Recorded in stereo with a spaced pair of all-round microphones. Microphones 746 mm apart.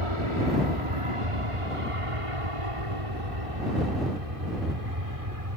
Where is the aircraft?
40° right (ahead or behind); by 5.6 s 50° right (ahead or behind).